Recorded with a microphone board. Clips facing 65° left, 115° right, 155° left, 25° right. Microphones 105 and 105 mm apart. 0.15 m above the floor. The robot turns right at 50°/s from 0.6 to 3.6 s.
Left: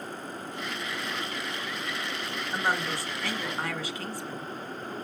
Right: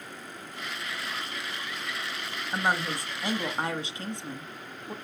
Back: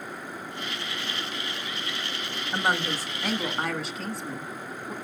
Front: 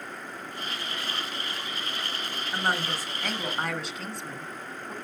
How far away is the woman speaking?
About 1.4 m.